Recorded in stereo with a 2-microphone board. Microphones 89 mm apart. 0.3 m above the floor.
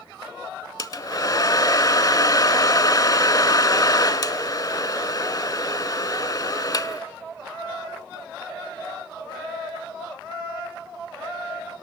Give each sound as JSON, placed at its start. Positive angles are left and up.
{"t": 0.8, "sound": "a hair dryer", "side_deg": 45, "distance_m": 0.7}